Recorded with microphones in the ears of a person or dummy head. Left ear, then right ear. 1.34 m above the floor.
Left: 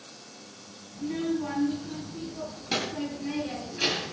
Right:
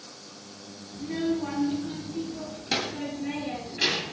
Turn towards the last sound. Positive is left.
turn(degrees=-5)  # may be behind; listen again after turning